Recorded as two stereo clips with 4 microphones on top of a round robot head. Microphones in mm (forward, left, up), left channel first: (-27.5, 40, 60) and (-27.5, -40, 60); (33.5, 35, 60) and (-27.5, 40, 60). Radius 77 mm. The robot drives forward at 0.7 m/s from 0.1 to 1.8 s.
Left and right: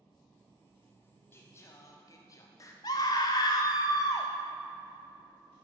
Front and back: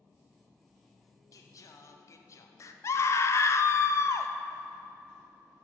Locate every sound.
1.3 s singing: 25° left, 1.0 m; by 2.7 s 35° left, 0.8 m
2.8 s a scream: 40° left, 0.7 m